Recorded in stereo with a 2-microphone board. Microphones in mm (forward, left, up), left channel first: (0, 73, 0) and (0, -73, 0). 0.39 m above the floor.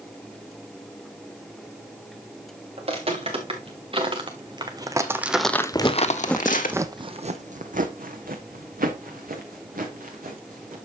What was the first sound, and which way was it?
Footsteps, 45° right (ahead or behind).